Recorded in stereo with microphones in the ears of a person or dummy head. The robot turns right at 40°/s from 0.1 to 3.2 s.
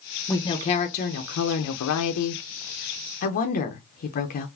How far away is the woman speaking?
About 0.6 m.